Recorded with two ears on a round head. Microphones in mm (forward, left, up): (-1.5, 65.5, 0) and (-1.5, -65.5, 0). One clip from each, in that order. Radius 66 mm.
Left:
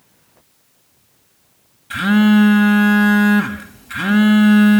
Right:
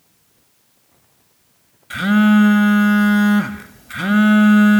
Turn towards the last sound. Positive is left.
turn(degrees=-30)  # may be behind; listen again after turning